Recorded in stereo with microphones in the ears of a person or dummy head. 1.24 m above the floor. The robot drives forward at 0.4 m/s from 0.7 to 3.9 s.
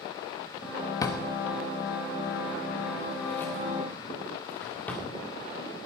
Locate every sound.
1.0 s a drawer: 25° left (ahead or behind), 1.1 m; by 5.1 s 10° left (ahead or behind), 2 m